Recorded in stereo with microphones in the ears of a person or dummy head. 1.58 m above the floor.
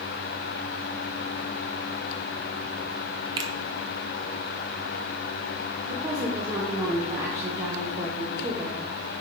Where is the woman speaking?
15° right (ahead or behind), 0.6 m.